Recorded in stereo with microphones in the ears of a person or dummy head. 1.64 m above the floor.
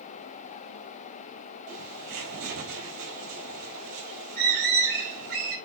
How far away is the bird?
About 4.5 m.